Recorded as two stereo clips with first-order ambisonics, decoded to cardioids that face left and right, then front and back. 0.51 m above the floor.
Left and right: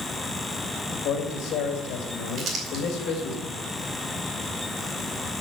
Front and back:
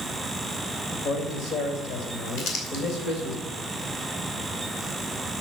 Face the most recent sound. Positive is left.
turn(degrees=-30)